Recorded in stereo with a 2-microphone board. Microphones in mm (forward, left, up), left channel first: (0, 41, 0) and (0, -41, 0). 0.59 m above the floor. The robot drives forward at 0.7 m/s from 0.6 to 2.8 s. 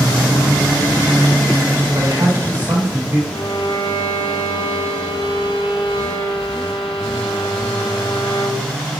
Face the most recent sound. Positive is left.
turn(degrees=75)  # may be behind; listen again after turning